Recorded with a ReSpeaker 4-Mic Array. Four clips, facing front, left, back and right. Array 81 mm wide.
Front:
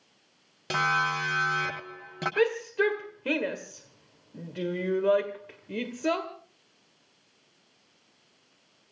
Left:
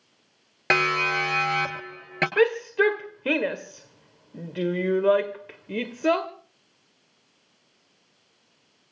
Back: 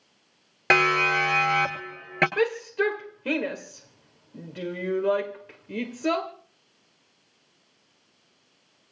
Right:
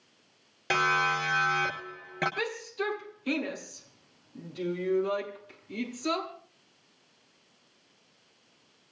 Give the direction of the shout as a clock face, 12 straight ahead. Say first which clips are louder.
Left 13 dB, front 4 dB; 9 o'clock.